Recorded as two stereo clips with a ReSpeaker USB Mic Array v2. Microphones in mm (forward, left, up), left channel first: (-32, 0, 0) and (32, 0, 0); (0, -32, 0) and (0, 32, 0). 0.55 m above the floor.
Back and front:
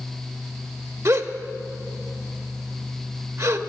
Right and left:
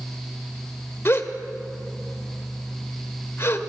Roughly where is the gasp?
Ahead right.